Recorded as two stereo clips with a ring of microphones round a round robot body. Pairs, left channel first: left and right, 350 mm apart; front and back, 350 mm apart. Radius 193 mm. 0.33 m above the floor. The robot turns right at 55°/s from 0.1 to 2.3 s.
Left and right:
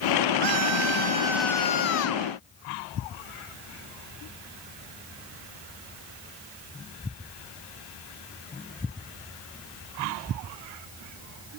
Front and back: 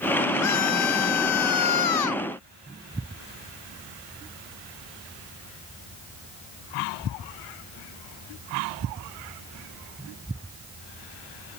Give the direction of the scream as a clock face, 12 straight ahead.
2 o'clock.